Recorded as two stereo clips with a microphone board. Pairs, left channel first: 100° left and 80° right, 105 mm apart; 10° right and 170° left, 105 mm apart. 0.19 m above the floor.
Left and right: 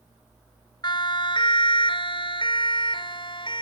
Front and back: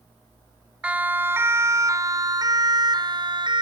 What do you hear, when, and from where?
0.8 s a siren: 95° left; by 3.6 s 135° left